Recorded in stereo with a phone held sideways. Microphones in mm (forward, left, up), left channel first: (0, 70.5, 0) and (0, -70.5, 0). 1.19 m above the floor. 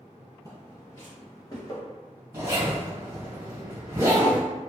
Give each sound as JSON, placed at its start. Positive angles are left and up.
{"t": 0.5, "sound": "footsteps", "side_deg": 25, "distance_m": 1.8}
{"t": 2.3, "sound": "a zipper", "side_deg": -20, "distance_m": 1.7}